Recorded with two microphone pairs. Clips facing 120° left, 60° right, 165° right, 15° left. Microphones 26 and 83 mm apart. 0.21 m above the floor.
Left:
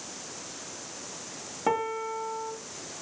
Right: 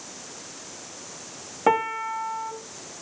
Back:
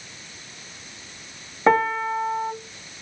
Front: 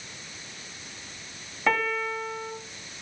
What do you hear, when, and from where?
1.7 s a piano: 115° right, 0.8 m